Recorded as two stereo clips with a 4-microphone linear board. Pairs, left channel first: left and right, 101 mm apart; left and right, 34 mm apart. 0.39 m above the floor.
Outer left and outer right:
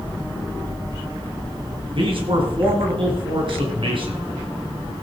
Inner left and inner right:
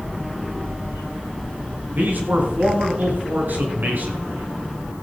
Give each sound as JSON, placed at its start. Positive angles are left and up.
{"t": 1.9, "sound": "a man speaking", "side_deg": -60, "distance_m": 4.0}